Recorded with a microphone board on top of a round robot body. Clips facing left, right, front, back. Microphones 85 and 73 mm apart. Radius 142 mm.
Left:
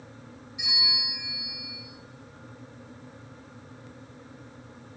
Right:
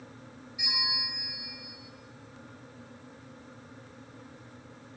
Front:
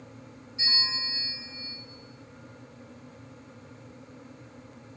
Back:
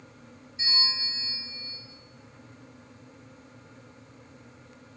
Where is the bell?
20° left, 1.1 m.